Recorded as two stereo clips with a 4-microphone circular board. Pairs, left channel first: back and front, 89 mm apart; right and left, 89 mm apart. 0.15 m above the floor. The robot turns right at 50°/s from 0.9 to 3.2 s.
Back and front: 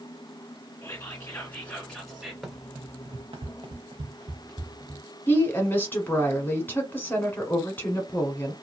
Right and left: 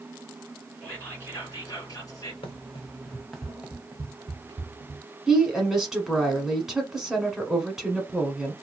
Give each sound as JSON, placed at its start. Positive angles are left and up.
{"t": 0.8, "sound": "whispering", "azimuth_deg": -145, "distance_m": 1.7}
{"t": 2.4, "sound": "running footsteps", "azimuth_deg": -90, "distance_m": 0.9}
{"t": 5.3, "sound": "a woman speaking", "azimuth_deg": 165, "distance_m": 1.1}